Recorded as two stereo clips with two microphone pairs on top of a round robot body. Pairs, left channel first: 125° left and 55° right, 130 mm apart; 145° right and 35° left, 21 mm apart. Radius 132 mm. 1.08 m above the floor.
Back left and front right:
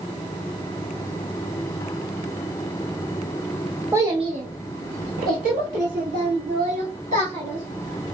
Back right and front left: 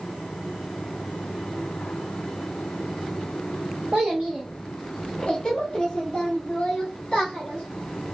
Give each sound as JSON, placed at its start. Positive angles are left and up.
{"t": 3.9, "sound": "a child speaking", "azimuth_deg": 20, "distance_m": 0.5}